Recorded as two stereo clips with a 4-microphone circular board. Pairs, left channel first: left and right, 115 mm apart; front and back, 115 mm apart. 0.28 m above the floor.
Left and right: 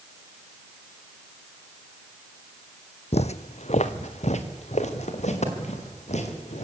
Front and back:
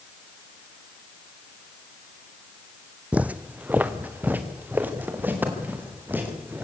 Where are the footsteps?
100° left, 0.7 m; by 6.6 s 105° left, 5.5 m.